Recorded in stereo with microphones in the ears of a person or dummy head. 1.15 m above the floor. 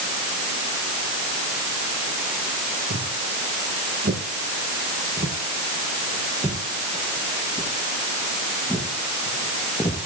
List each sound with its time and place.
2.9 s footsteps: 50° right (ahead or behind), 6 m; by 10.1 s 15° left (ahead or behind), 6.5 m